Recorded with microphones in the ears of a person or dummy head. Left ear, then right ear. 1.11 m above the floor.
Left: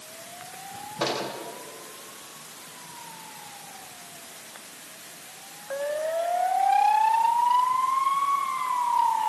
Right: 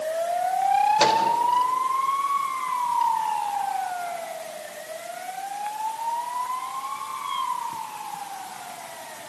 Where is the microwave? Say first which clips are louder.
Right 3 dB; 85° right, 4 m.